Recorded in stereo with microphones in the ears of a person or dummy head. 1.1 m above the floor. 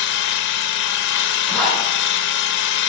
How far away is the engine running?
About 0.9 m.